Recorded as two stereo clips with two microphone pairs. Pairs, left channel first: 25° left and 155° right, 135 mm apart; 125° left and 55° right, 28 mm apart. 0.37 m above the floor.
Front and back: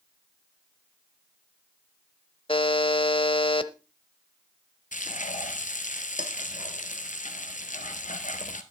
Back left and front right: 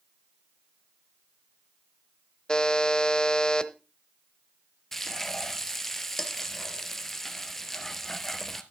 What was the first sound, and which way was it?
A buzzer, 65° left.